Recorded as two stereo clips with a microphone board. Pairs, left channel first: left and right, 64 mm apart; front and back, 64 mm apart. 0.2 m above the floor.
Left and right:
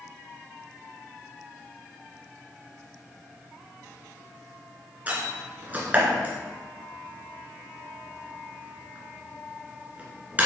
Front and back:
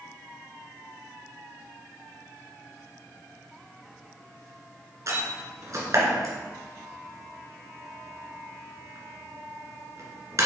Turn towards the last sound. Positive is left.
turn(degrees=-155)